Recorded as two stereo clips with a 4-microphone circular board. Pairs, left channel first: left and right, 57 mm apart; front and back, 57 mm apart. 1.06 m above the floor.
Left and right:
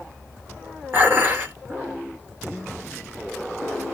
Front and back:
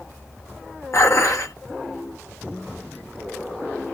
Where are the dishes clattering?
35° right, 1.0 m.